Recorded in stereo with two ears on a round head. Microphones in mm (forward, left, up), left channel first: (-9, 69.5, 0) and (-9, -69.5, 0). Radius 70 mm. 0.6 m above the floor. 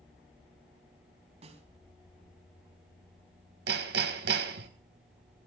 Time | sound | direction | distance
1.4 | a snare drum | 45° right (ahead or behind) | 3.5 m
3.7 | hammering | 80° right | 2.5 m